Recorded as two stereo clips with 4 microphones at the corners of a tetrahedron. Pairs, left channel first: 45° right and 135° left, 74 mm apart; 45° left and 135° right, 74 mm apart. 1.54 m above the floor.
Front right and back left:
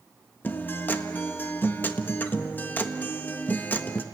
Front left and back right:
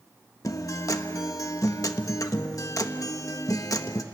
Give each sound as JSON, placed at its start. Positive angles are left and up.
{"t": 0.4, "sound": "a guitar", "azimuth_deg": 15, "distance_m": 1.2}